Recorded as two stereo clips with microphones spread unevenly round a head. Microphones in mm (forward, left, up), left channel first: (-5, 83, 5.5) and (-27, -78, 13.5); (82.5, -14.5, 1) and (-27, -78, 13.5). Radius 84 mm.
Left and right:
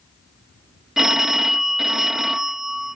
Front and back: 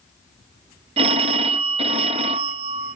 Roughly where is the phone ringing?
Behind.